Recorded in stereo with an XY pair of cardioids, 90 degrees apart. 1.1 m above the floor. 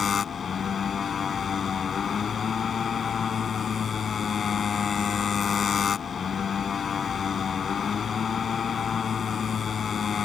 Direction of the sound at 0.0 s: 55° left.